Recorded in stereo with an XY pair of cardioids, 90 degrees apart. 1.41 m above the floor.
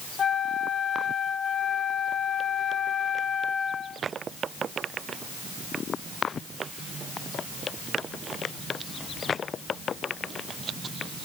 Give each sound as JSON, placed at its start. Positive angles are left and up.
{"t": 0.2, "sound": "a flute", "azimuth_deg": 45, "distance_m": 1.1}